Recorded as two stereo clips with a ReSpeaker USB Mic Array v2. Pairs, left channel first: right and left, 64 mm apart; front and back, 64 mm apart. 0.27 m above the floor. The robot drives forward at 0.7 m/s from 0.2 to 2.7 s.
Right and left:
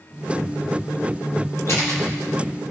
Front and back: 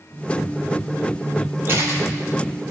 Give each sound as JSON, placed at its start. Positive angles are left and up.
{"t": 1.7, "sound": "a camera shutter", "azimuth_deg": -130, "distance_m": 3.0}